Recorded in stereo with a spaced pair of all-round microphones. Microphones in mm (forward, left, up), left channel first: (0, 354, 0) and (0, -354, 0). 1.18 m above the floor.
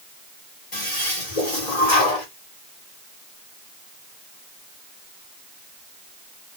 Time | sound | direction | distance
0.7 | a toilet flushing | 80° left | 2.5 m